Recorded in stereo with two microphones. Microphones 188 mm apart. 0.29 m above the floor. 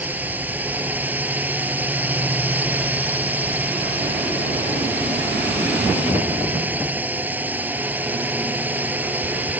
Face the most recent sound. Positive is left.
turn(degrees=-10)  # may be behind; listen again after turning